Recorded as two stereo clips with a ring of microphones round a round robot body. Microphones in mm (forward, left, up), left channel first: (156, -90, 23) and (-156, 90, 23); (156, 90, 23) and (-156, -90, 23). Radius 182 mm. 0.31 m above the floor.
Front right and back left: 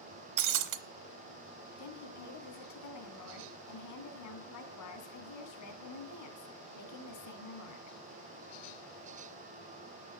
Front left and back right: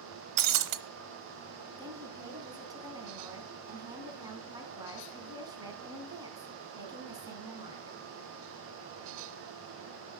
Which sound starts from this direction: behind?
Breaking glass, at 0.4 s.